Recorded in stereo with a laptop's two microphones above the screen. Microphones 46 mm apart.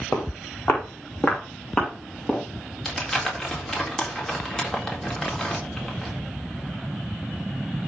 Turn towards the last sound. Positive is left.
turn(degrees=10)  # may be behind; listen again after turning